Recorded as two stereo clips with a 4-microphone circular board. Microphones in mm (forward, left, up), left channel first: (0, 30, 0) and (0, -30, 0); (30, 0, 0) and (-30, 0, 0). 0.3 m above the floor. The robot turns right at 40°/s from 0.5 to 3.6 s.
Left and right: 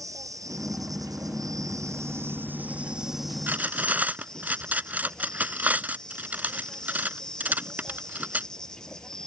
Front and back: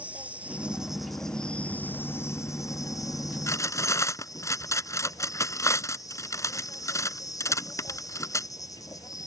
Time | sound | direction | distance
0.0 | an insect | 115° right | ?
3.5 | cutlery clinking | 35° right | ?